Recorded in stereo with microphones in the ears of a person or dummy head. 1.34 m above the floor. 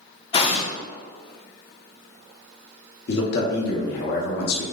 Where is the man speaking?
60° left (ahead or behind), 0.7 m.